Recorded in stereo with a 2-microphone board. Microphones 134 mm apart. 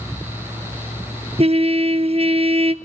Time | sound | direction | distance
1.4 | a trumpet | 50° right (ahead or behind) | 0.8 m